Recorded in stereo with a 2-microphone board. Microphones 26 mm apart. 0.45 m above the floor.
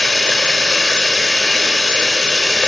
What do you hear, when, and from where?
0.0 s running water: 25° left (ahead or behind), 1.3 m